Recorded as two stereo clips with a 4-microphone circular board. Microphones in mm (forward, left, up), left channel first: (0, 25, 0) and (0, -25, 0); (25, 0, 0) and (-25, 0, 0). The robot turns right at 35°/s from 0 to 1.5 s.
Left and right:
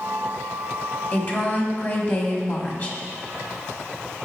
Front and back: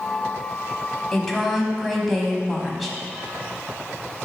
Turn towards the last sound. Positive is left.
turn(degrees=90)